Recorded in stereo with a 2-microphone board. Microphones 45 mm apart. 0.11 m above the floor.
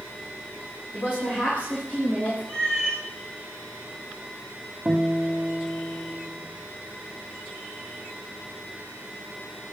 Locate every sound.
0.9 s a woman speaking: 45° left (ahead or behind), 10 m; by 2.4 s 40° left (ahead or behind), 9 m
2.5 s a cat meowing: 20° left (ahead or behind), 5.5 m
4.8 s a guitar: 10° right (ahead or behind), 5 m